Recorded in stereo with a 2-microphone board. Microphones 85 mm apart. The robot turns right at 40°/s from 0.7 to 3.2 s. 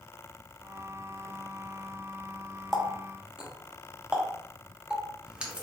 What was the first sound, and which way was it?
A running tap, 5° left (ahead or behind).